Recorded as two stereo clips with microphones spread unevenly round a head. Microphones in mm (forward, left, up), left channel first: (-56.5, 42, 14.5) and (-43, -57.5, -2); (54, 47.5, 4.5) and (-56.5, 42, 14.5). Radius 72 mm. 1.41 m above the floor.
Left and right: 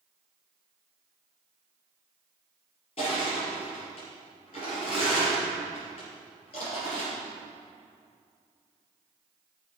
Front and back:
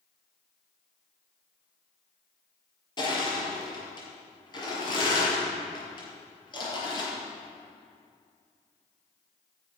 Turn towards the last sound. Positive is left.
turn(degrees=50)